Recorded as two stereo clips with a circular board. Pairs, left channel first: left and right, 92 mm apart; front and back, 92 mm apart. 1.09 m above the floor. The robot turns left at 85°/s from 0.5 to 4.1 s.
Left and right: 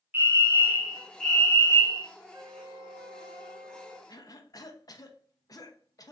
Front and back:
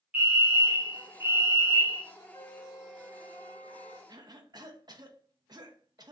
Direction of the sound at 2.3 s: 35° right.